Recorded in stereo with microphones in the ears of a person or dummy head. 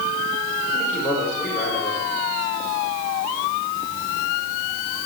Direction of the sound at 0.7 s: 10° right (ahead or behind).